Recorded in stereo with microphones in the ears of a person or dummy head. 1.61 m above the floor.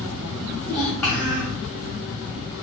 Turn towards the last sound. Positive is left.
turn(degrees=5)  # may be behind; listen again after turning